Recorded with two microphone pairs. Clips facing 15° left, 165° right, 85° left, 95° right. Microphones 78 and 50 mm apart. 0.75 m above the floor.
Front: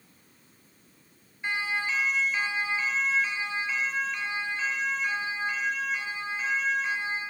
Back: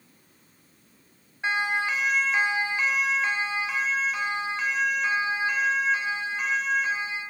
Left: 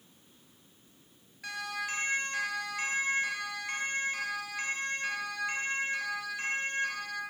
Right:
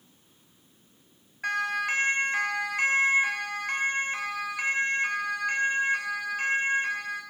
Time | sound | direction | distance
1.4 | a siren | 145° right | 5.5 m